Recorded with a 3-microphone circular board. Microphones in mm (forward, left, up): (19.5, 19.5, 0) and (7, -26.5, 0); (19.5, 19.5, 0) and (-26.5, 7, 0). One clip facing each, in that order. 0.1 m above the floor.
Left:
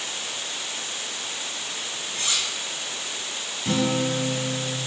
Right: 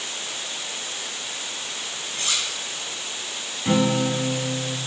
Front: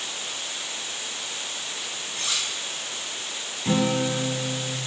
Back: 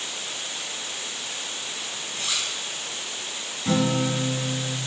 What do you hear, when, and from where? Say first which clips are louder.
2.1 s cutlery clinking: right 1 dB, even; 15° left, 3.5 m
3.6 s a guitar: right 3 dB, even; 35° right, 1.1 m